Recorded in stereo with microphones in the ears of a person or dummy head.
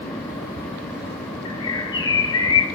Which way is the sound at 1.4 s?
20° left (ahead or behind).